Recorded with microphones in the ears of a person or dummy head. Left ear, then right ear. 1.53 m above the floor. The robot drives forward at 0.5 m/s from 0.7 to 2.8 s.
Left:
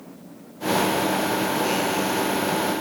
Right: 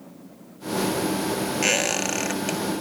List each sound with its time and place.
1.6 s a squeak: 45° right (ahead or behind), 1.5 m; by 2.6 s 40° right (ahead or behind), 1.8 m